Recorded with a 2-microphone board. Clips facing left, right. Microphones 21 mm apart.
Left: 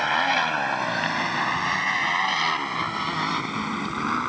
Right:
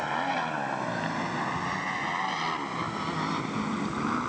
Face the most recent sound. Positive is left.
turn(degrees=35)  # may be behind; listen again after turning